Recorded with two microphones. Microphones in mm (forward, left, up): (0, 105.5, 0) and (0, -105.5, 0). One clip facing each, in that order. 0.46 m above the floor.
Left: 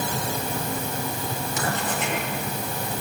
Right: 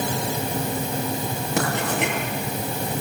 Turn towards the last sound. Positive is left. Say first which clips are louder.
# right 5 dB
turn(degrees=-75)  # may be behind; listen again after turning